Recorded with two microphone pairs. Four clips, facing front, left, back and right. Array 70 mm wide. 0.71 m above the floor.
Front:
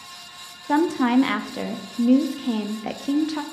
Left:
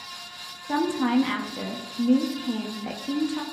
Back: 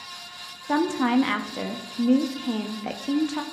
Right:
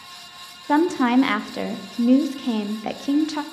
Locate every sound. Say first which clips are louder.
0.7 s a woman speaking: right 5 dB, front 3 dB; 90° right, 0.6 m